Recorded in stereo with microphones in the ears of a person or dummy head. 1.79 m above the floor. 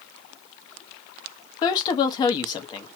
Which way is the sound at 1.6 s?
25° left (ahead or behind).